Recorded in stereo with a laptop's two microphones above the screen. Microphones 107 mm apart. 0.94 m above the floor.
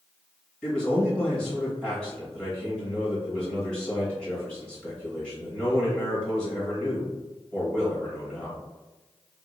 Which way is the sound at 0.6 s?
10° left (ahead or behind).